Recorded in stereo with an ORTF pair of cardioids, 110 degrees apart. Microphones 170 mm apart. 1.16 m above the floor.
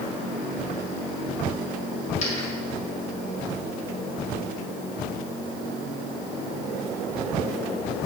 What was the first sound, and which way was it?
A dropped coin, 45° left.